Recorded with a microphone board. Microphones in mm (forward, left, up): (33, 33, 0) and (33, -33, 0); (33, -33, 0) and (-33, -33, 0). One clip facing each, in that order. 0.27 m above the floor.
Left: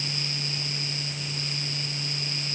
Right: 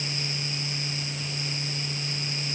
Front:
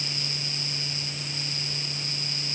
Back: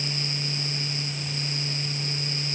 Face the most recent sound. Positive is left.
No sound to turn to.